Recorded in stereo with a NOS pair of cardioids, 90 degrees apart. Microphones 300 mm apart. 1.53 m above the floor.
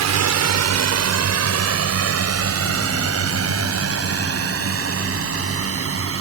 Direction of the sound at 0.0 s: 65° right.